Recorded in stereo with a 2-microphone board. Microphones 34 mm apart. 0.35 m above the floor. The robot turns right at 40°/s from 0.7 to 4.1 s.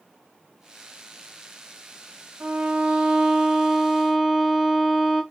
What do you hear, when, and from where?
2.4 s a violin: 80° right, 0.7 m; by 5.2 s 15° right, 0.7 m